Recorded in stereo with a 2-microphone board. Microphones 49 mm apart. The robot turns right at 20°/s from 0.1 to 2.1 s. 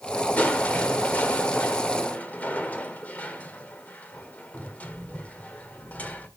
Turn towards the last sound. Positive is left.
turn(degrees=105)